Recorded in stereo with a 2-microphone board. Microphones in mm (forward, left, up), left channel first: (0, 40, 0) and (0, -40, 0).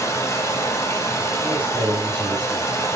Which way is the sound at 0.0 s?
35° left (ahead or behind).